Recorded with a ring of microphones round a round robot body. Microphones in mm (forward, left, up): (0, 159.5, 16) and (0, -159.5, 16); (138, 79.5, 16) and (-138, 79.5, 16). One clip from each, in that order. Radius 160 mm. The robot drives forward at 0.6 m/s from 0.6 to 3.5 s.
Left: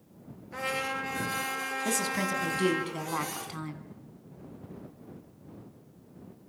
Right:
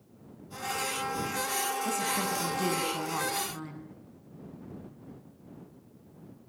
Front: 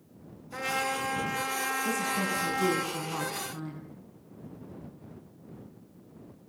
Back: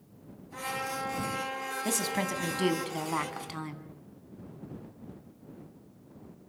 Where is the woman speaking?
160° left, 3.5 m; by 3.9 s 165° left, 4.5 m.